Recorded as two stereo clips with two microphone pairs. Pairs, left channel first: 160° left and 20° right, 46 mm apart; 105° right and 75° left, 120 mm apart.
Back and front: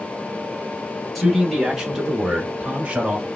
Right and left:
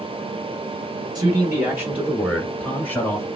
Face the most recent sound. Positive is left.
turn(degrees=-60)